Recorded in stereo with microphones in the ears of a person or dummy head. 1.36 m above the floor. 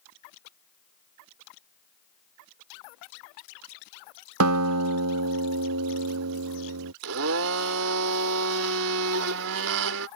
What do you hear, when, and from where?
4.4 s a guitar: 75° right (ahead or behind)
7.0 s a blender: 65° right (ahead or behind)